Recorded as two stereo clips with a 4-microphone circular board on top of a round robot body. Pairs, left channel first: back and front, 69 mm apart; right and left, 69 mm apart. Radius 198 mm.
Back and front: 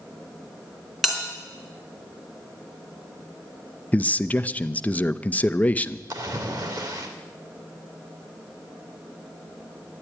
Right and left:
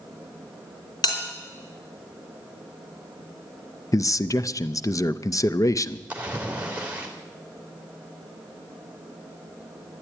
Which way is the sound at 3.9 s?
115° right.